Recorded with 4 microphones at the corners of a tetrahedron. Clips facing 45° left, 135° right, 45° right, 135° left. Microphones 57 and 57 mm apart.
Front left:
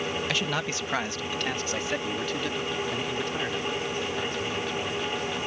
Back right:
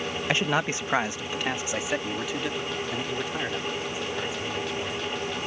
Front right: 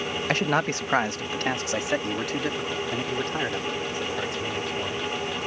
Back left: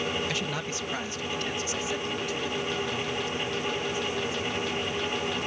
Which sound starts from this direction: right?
A man speaking, at 0.3 s.